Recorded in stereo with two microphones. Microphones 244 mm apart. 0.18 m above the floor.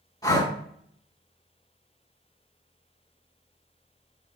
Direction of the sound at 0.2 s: 15° left (ahead or behind).